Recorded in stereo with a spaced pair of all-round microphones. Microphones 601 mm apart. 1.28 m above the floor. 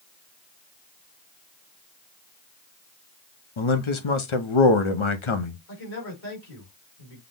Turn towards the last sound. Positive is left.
turn(degrees=70)  # may be behind; listen again after turning